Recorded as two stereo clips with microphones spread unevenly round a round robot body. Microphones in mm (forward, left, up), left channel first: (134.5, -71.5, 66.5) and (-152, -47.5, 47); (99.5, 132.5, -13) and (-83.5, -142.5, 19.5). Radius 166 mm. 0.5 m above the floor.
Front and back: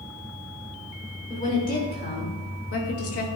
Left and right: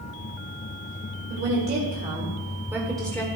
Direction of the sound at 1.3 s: 70° right.